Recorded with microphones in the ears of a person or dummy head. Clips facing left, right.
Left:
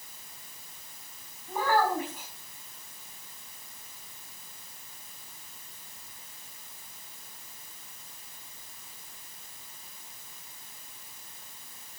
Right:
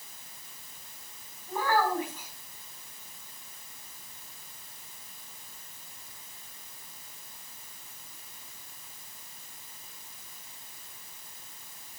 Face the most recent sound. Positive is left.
turn(degrees=10)  # may be behind; listen again after turning